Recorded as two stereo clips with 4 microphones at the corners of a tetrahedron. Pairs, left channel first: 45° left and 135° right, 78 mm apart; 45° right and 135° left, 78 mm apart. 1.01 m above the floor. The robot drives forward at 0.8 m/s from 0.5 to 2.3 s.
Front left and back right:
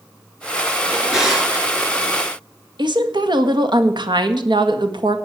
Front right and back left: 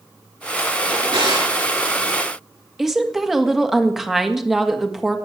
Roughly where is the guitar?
I don't hear a guitar.